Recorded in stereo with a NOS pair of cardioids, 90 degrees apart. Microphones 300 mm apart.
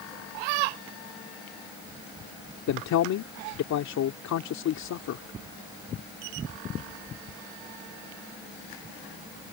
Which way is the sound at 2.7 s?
65° left.